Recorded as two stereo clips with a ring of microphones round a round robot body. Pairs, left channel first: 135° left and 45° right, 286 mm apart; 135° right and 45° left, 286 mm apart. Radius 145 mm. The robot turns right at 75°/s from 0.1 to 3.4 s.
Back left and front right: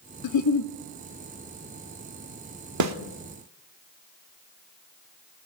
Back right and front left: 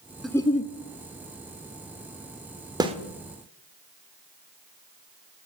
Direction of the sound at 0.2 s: 135° left.